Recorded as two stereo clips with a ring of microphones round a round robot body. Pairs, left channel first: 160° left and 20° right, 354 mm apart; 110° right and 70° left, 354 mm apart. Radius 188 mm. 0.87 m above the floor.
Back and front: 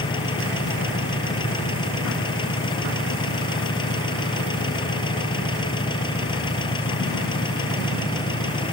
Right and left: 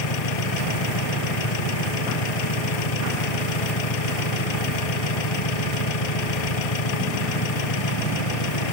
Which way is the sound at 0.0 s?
125° right.